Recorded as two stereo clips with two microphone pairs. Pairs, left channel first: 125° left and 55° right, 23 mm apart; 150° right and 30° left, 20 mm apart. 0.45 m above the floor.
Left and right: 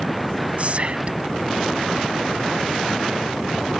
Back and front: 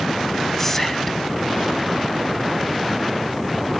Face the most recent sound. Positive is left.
turn(degrees=-80)